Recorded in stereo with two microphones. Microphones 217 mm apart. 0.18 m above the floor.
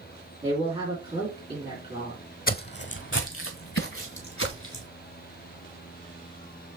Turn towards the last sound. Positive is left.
turn(degrees=80)